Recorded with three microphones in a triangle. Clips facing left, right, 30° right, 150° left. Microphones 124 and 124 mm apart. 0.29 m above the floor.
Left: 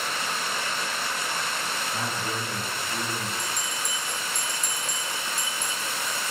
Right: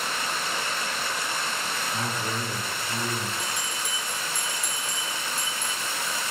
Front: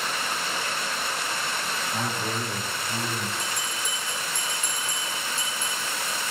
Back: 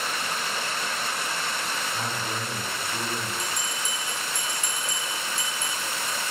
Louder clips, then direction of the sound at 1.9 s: Right 1 dB, front 2 dB; 20° right.